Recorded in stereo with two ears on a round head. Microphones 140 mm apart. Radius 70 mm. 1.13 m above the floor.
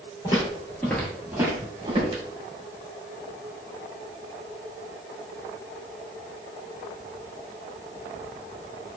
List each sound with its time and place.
0.2 s footsteps: 30° left (ahead or behind), 1.2 m; by 2.2 s 40° right (ahead or behind), 1.4 m